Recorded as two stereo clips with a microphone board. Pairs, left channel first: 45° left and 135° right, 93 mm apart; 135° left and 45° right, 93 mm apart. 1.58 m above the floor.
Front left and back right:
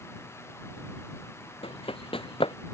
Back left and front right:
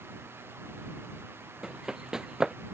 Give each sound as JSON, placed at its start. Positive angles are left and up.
{"t": 1.6, "sound": "running footsteps", "azimuth_deg": 40}